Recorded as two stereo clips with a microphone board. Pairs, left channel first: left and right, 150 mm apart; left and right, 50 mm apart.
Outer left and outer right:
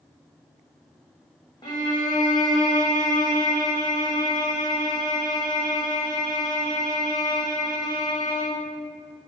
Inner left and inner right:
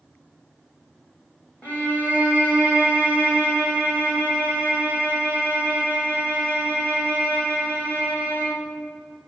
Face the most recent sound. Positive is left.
turn(degrees=25)  # may be behind; listen again after turning